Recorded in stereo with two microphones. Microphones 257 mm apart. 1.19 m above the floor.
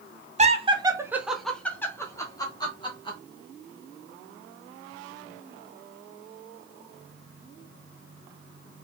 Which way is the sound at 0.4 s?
25° right (ahead or behind).